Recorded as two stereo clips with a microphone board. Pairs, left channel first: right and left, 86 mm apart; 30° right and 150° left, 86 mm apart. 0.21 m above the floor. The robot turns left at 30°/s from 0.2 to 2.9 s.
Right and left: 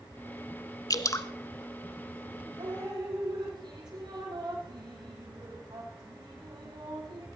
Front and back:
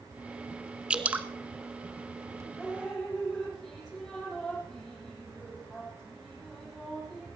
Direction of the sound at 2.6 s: 70° left.